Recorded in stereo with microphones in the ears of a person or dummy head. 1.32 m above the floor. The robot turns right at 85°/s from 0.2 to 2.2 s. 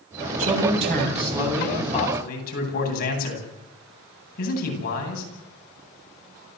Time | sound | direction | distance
0.4 | a man speaking | 105° right | 9 m